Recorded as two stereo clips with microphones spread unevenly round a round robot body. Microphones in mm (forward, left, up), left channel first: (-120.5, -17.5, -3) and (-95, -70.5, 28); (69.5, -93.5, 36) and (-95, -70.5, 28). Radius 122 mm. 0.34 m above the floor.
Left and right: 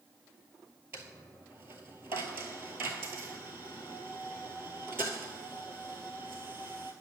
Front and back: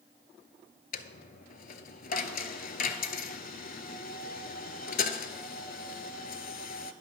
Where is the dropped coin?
35° right, 0.6 m.